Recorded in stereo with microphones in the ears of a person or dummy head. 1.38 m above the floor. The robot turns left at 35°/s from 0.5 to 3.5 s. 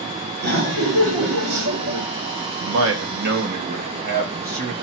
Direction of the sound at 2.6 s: 105° right.